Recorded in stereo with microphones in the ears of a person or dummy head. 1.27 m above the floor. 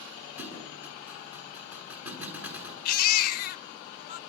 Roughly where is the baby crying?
Left.